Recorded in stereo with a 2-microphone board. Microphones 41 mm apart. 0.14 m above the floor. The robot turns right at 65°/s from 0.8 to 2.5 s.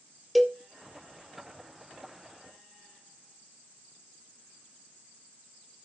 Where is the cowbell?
Centre (ahead or behind), 0.8 m.